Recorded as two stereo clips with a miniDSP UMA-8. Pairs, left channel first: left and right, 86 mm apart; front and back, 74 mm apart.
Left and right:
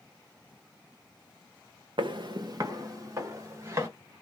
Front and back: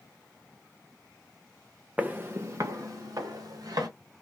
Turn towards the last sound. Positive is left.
turn(degrees=-150)